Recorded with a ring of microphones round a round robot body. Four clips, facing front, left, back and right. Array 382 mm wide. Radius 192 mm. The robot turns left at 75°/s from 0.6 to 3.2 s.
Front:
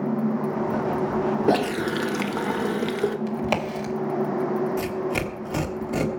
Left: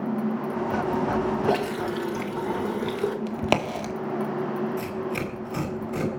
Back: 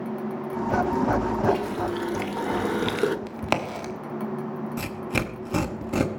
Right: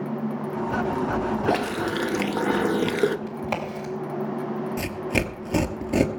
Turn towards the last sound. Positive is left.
turn(degrees=-115)